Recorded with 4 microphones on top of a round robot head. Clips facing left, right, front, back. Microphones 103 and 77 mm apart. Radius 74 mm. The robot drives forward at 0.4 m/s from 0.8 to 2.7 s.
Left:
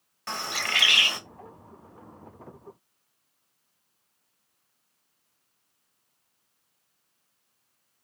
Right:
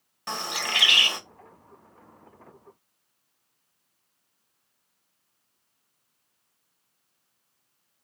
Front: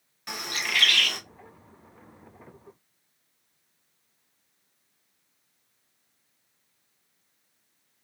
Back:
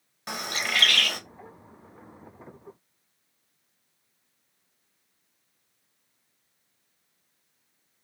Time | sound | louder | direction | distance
0.3 | a bird | right 1 dB, back 2 dB | 150° right | 1.0 m